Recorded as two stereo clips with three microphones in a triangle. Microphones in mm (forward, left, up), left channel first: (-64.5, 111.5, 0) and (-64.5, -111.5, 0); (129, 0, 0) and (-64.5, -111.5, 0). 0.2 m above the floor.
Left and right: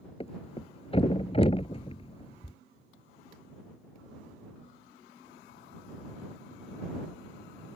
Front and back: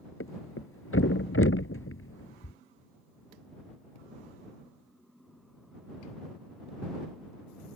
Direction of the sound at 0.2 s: 30° left.